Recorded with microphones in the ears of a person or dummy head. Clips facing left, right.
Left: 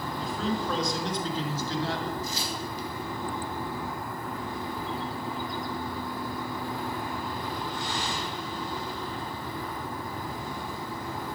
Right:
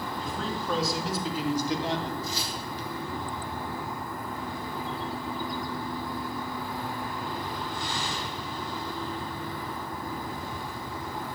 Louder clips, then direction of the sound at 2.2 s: Left 1 dB; 40° left (ahead or behind).